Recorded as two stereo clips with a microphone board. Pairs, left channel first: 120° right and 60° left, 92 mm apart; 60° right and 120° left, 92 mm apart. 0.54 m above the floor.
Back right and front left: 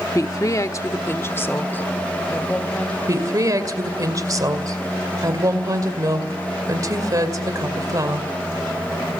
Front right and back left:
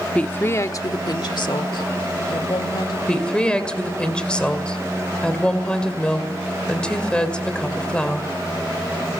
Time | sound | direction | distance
0.1 | a woman speaking | 125° right | 0.8 m
3.1 | a woman speaking | 20° left | 2 m